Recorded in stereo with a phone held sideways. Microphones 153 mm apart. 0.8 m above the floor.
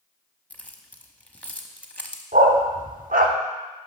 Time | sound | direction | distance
0.5 | keys jangling | 10° left (ahead or behind) | 0.8 m
2.3 | a dog barking | 75° right (ahead or behind) | 0.8 m